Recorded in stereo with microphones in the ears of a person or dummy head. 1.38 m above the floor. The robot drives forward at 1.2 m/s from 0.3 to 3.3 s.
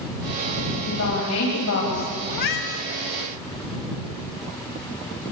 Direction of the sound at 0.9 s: 90° left.